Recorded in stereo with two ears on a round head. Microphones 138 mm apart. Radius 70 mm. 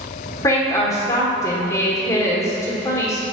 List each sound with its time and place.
0.4 s a woman speaking: 20° left (ahead or behind), 1.3 m